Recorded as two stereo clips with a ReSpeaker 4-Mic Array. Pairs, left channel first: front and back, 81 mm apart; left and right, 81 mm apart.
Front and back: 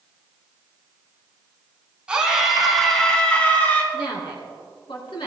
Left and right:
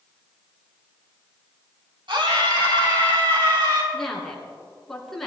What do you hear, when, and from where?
2.1 s a scream: 100° right, 3.5 m; by 3.8 s 65° right, 3.5 m
3.9 s a woman speaking: 5° left, 4 m